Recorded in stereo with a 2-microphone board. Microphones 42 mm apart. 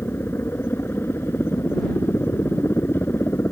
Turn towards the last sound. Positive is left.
turn(degrees=70)  # may be behind; listen again after turning